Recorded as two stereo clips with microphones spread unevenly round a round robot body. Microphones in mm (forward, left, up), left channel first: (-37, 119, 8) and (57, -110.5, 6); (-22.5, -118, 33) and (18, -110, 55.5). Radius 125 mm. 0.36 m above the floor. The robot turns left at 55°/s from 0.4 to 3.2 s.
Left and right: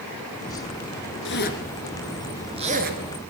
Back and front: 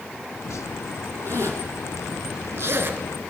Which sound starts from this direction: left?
A zipper, at 1.2 s.